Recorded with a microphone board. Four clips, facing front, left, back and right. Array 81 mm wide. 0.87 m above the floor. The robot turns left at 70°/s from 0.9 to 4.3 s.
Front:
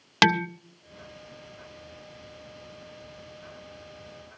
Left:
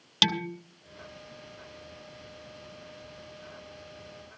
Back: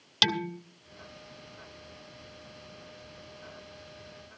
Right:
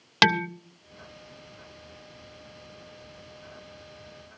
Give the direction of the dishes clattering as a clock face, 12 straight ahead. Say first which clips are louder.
Right 8 dB, front 8 dB; 1 o'clock.